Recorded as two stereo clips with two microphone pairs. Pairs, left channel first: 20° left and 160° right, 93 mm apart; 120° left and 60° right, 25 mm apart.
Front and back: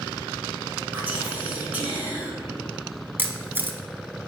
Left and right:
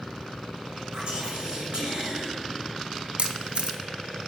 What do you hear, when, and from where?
0.9 s whispering: 95° right, 2 m
3.2 s a camera shutter: 95° right, 0.7 m